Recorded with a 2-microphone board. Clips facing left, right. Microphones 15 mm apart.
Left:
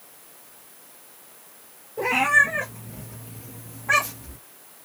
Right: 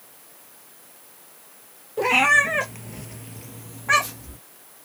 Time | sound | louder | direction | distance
2.0 | a cat meowing | right 1 dB | 50° right (ahead or behind) | 1.0 m